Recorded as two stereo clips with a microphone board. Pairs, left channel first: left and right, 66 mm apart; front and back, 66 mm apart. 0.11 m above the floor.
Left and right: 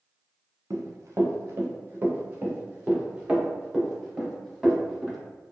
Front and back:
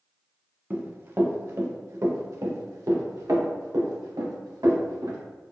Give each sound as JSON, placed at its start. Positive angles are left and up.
{"t": 0.7, "sound": "running footsteps", "azimuth_deg": -125, "distance_m": 1.3}